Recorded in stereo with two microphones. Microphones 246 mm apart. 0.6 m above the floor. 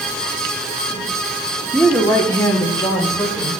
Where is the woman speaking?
5° left (ahead or behind), 1.4 m; by 3.5 s 15° left (ahead or behind), 3 m.